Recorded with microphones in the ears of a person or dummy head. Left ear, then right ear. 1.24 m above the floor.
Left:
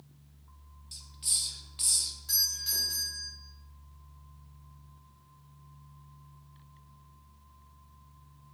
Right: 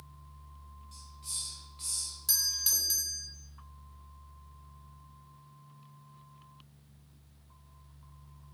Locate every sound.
0.9 s a hiss: 35° left (ahead or behind), 0.5 m
2.3 s a doorbell: 25° right (ahead or behind), 0.6 m